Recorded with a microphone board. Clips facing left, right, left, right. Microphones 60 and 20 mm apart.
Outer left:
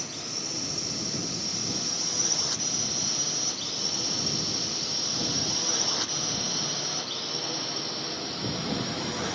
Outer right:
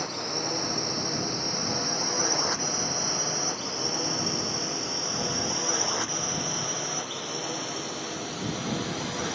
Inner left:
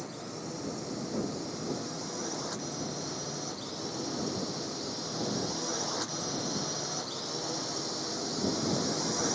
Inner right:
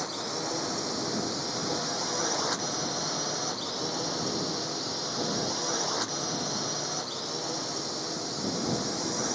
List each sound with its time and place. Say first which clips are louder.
0.0 s a drone: outer right 7 dB, inner right 8 dB; 45° right (ahead or behind); by 9.3 s centre (ahead or behind)